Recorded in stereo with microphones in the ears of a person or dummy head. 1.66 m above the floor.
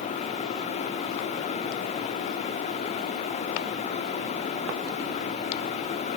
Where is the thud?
No thud in this recording.